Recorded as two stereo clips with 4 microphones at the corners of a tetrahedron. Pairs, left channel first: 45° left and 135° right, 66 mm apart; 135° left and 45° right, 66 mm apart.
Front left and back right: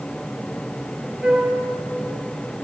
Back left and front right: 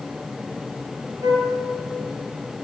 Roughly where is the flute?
Ahead right.